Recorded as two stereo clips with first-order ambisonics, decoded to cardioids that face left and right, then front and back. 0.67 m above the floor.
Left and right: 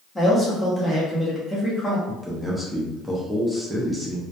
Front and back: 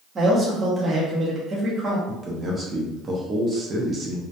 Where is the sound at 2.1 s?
175° right, 0.5 m.